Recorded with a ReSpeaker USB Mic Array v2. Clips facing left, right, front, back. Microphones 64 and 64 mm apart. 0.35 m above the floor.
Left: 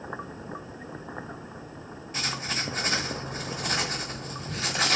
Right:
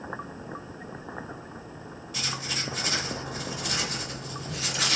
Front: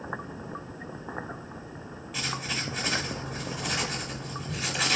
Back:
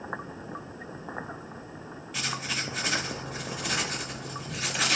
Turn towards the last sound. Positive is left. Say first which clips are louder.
# left 2 dB, even
turn(degrees=90)